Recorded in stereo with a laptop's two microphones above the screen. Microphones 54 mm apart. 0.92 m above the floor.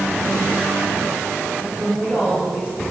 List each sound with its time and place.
1.6 s a woman speaking: 35° right (ahead or behind), 5 m; by 2.8 s 25° right (ahead or behind), 5.5 m